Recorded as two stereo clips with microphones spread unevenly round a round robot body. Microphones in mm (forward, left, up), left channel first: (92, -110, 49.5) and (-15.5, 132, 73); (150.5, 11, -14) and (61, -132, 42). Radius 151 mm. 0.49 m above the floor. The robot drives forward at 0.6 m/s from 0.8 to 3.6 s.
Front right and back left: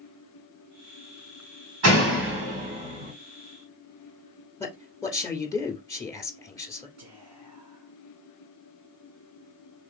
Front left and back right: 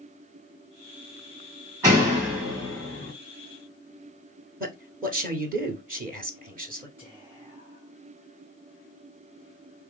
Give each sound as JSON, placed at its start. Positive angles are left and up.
{"t": 1.8, "sound": "a door slam", "azimuth_deg": 155, "distance_m": 2.5}
{"t": 4.6, "sound": "a man speaking", "azimuth_deg": -120, "distance_m": 1.5}
{"t": 7.0, "sound": "whispering", "azimuth_deg": 120, "distance_m": 2.0}